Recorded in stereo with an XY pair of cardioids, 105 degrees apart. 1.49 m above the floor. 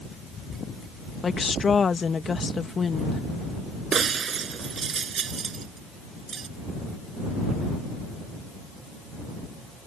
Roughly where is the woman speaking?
Ahead left.